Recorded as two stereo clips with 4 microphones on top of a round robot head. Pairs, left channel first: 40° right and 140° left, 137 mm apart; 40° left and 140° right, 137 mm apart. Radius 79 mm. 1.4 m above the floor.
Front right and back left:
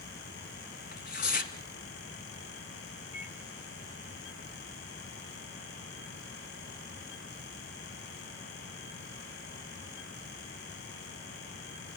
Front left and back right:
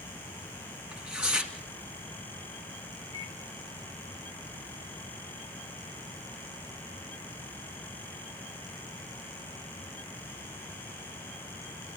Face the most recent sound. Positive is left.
turn(degrees=-80)